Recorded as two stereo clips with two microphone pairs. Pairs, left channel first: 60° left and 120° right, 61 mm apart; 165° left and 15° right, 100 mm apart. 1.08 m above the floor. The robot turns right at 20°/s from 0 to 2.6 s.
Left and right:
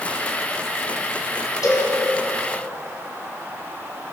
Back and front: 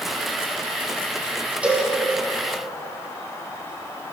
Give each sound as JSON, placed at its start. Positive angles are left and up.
{"t": 1.6, "sound": "a cowbell", "azimuth_deg": 60, "distance_m": 2.0}